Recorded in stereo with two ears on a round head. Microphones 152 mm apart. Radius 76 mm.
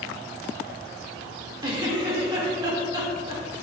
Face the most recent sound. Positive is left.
turn(degrees=-25)  # may be behind; listen again after turning